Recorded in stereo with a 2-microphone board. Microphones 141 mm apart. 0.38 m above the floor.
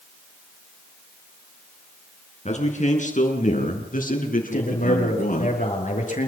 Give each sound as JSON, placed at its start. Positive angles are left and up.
{"t": 2.5, "sound": "a man speaking", "side_deg": 55, "distance_m": 5.5}
{"t": 4.5, "sound": "a man speaking", "side_deg": 60, "distance_m": 7.0}